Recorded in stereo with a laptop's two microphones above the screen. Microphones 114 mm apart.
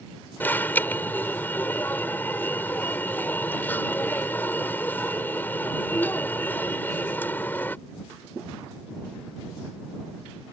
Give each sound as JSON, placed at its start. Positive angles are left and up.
{"t": 0.4, "sound": "an alarm", "side_deg": 15}